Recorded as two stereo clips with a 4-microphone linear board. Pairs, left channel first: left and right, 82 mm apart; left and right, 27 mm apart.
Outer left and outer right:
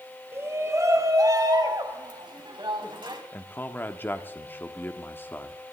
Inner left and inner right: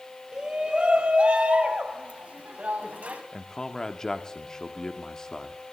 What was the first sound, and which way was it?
A shout, 30° right (ahead or behind).